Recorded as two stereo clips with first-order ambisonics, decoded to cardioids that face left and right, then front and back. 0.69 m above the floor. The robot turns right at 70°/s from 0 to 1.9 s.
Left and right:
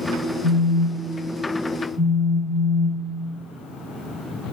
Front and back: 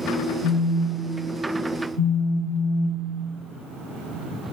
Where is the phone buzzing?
45° left, 1.7 m; by 3.2 s 150° left, 1.7 m.